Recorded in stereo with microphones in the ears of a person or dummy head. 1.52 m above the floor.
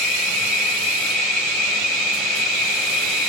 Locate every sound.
0.0 s an insect: 5° right (ahead or behind), 1.7 m